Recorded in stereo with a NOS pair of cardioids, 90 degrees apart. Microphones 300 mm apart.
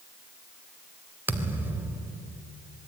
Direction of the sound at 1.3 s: 5° right.